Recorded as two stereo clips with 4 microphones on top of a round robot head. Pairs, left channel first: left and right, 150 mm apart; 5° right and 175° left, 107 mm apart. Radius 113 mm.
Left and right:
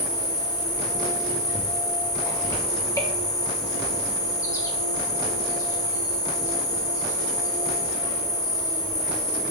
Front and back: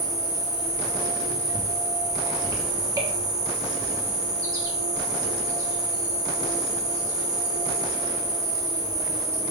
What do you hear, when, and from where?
0.0 s an insect: 145° left, 1.4 m